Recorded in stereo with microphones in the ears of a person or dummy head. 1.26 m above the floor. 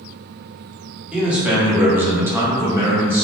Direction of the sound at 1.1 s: 10° right (ahead or behind).